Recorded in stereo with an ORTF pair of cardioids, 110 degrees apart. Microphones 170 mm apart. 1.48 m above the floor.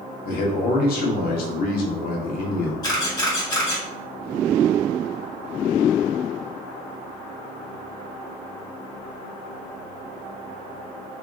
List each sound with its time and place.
0.2 s a man speaking: 65° left, 0.8 m
2.8 s a camera shutter: 25° left, 1.3 m